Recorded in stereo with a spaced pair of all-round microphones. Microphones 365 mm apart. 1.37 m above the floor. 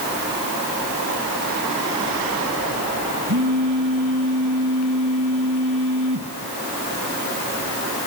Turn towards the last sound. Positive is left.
turn(degrees=-55)  # may be behind; listen again after turning